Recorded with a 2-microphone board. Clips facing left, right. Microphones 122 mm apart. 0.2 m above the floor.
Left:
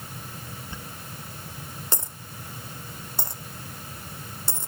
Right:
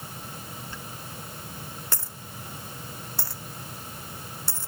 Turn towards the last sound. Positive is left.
turn(degrees=20)  # may be behind; listen again after turning